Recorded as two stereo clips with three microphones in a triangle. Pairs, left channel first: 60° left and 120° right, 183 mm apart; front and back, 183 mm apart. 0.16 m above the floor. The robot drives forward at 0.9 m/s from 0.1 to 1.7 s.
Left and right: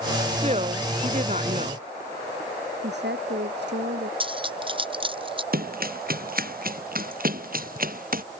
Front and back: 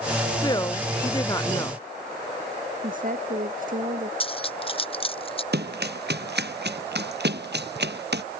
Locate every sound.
0.3 s a woman speaking: 65° right; by 1.8 s 70° right
2.8 s a woman speaking: 140° right
4.2 s cutlery clinking: 60° right
5.5 s running footsteps: 155° right; by 8.2 s 160° right